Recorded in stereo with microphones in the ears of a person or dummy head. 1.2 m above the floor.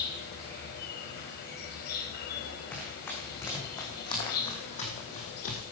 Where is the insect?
60° left (ahead or behind), 4.5 m.